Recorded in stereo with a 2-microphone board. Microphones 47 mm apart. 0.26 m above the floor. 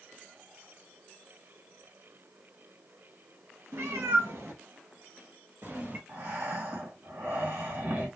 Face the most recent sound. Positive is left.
turn(degrees=-65)  # may be behind; listen again after turning